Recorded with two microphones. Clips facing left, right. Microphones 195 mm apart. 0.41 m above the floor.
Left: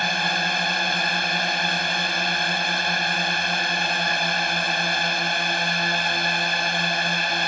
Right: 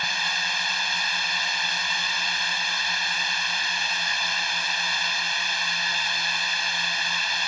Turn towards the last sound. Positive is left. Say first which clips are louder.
# left 9 dB
turn(degrees=60)  # may be behind; listen again after turning